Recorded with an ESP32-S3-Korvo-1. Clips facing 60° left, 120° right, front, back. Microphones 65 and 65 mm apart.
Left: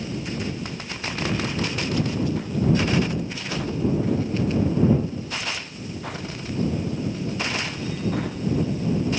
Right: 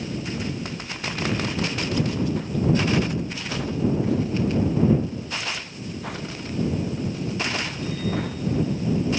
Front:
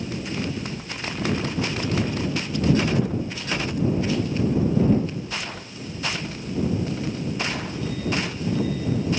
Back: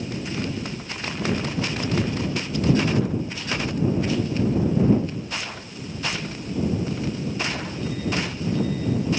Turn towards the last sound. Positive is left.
No sound to turn to.